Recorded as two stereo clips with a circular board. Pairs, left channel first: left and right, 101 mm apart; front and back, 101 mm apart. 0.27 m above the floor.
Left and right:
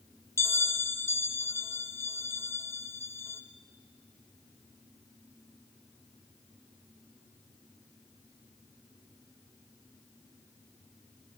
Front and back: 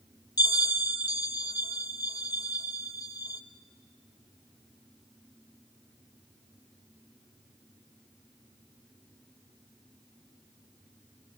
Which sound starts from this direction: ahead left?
A bell, at 0.4 s.